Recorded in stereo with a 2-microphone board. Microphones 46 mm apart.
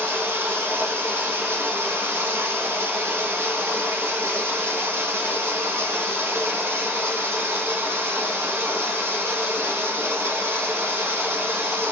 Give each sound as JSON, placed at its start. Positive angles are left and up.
{"t": 0.0, "sound": "running water", "side_deg": -65, "distance_m": 1.2}